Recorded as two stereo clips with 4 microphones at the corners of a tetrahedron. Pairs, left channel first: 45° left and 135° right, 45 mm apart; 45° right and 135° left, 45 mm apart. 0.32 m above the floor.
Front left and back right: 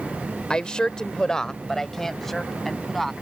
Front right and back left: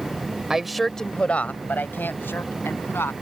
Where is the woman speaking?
80° left; by 3.1 s 40° right.